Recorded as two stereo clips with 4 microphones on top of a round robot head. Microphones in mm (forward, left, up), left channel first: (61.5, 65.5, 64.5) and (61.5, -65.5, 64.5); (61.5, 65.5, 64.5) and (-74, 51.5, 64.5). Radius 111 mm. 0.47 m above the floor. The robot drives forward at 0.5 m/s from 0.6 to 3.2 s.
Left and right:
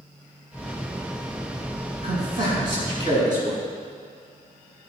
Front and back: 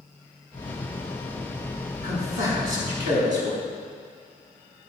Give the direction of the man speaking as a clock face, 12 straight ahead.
5 o'clock.